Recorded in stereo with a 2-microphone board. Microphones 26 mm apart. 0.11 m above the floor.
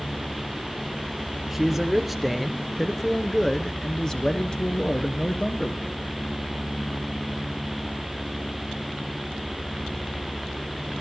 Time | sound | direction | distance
1.5 | a man speaking | 10° right (ahead or behind) | 2 m